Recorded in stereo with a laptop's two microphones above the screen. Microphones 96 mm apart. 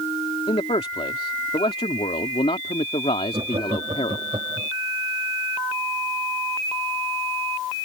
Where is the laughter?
60° right (ahead or behind).